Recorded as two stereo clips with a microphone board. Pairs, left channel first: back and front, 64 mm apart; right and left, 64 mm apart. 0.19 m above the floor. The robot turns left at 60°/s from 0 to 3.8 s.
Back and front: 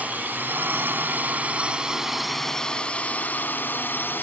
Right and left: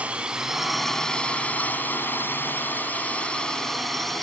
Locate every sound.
0.0 s a drone: 40° left; by 4.2 s 170° right